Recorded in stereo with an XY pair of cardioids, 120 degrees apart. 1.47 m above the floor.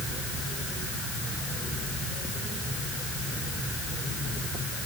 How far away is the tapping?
I don't hear tapping.